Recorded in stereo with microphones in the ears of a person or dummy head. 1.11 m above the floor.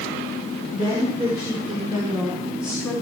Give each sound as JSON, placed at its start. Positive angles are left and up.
{"t": 0.7, "sound": "a woman speaking", "side_deg": -30, "distance_m": 3.5}